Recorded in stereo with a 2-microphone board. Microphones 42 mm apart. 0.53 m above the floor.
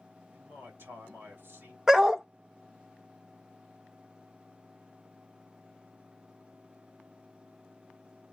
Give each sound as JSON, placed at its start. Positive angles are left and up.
{"t": 0.3, "sound": "a man speaking", "side_deg": -65, "distance_m": 2.0}
{"t": 1.9, "sound": "a dog barking", "side_deg": -15, "distance_m": 0.5}